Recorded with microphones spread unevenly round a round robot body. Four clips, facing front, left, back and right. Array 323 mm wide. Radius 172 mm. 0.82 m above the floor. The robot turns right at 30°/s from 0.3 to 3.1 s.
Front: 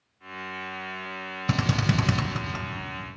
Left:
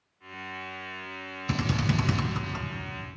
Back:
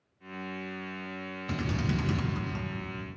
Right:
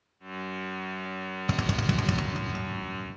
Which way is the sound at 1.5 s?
30° right.